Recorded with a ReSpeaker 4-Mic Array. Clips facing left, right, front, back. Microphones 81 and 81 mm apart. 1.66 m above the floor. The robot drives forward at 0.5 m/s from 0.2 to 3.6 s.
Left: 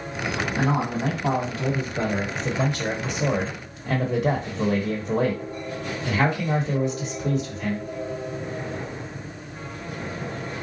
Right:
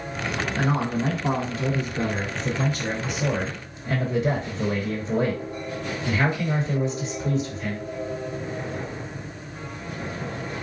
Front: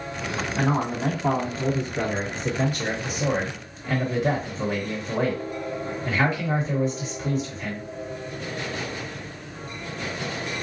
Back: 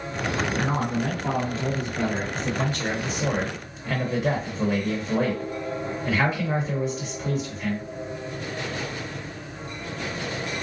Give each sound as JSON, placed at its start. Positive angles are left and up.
{"t": 0.6, "sound": "a man speaking", "azimuth_deg": 45, "distance_m": 2.0}